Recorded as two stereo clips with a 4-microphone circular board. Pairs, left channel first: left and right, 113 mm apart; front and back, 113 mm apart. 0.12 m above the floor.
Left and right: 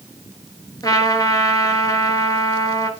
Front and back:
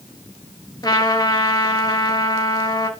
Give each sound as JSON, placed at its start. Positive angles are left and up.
{"t": 0.8, "sound": "a trumpet", "azimuth_deg": 45, "distance_m": 2.5}